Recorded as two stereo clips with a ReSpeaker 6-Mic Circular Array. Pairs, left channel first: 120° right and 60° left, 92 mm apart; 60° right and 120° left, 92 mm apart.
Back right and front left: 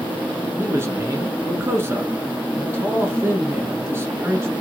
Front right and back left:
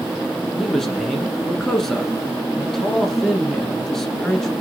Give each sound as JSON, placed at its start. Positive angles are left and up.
{"t": 0.6, "sound": "a man speaking", "azimuth_deg": 20, "distance_m": 1.2}